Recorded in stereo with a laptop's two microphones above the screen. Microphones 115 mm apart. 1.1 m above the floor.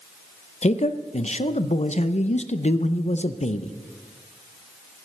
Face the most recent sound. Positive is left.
turn(degrees=75)  # may be behind; listen again after turning